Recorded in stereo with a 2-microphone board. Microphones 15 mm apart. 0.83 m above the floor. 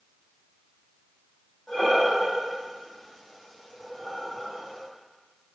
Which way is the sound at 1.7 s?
50° left (ahead or behind).